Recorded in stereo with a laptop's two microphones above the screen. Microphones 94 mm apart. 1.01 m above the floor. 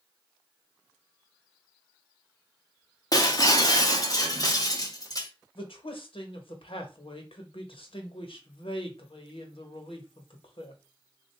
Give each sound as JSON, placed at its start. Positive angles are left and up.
{"t": 3.1, "sound": "breaking glass", "side_deg": 40, "distance_m": 0.7}
{"t": 5.5, "sound": "a man speaking", "side_deg": 70, "distance_m": 1.2}